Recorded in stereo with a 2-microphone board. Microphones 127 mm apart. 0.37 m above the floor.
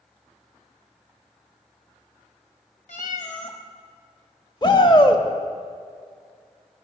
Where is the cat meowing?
70° left (ahead or behind), 1.1 m.